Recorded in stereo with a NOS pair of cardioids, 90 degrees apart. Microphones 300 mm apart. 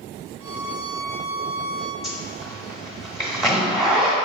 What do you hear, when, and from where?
0.4 s a violin: 50° right, 0.7 m
2.0 s a zipper: straight ahead, 1.0 m